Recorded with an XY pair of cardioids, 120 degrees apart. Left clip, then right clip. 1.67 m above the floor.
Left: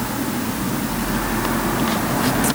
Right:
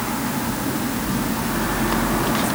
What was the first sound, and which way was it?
Only background noise.